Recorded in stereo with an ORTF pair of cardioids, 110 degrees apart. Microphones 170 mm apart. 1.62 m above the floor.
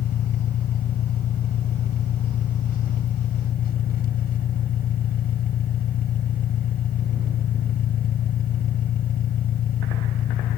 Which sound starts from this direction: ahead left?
An engine running, at 0.0 s.